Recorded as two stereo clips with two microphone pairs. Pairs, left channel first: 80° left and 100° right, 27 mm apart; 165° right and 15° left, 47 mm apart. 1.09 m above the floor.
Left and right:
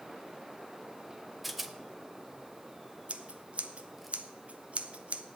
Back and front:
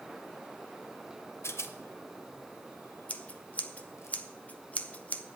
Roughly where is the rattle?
Behind.